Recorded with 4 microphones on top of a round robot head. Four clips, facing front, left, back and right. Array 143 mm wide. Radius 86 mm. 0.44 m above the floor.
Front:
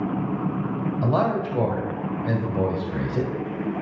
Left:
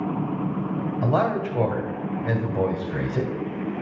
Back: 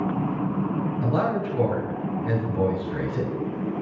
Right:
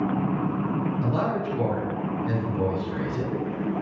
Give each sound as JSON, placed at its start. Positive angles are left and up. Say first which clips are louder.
{"t": 1.0, "sound": "a man speaking", "louder": "left 3 dB, front 3 dB", "azimuth_deg": 55, "distance_m": 2.0}